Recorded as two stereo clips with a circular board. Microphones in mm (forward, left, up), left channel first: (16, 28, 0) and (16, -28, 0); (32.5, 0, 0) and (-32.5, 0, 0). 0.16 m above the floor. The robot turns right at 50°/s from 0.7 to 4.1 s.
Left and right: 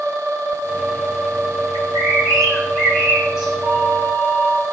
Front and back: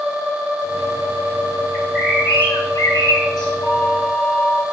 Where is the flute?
65° right, 1.8 m; by 4.6 s 40° right, 1.8 m.